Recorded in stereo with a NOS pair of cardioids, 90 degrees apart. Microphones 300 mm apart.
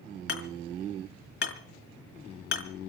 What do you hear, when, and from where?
0.3 s hammering: 40° left, 4.5 m